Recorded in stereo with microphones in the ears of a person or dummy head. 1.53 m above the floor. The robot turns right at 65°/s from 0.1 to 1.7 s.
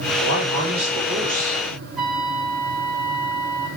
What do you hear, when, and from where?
0.2 s a man speaking: 95° right, 5 m; by 1.6 s 5° right, 5 m
2.0 s a trumpet: 5° left (ahead or behind), 4 m